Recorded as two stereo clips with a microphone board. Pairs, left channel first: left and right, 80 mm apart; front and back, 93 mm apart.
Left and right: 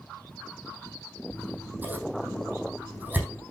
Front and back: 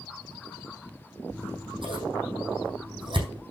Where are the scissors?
160° right, 4.5 m.